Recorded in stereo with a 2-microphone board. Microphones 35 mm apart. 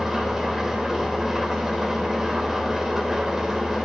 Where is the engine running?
10° right (ahead or behind), 3.5 m.